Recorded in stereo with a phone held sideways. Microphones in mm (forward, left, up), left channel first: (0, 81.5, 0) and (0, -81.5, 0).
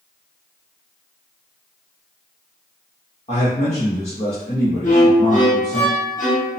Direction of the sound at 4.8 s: 50° left (ahead or behind).